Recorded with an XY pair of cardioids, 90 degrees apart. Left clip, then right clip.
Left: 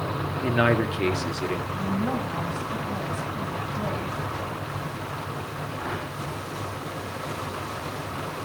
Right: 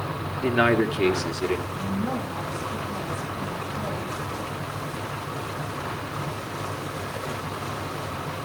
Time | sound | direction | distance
0.4 | a man speaking | 10° right | 1.9 m
1.7 | a woman speaking | 20° left | 6.5 m